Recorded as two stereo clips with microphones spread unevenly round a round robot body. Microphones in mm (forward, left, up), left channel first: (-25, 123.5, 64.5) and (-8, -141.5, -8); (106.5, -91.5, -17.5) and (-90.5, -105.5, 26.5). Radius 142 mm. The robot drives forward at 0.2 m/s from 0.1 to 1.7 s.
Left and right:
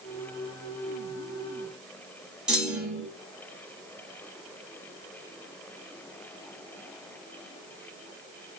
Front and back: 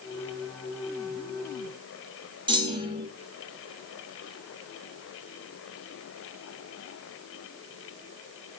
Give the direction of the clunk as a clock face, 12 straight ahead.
4 o'clock.